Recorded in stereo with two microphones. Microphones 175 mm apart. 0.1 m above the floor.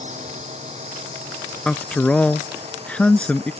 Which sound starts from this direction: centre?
A man speaking, at 1.6 s.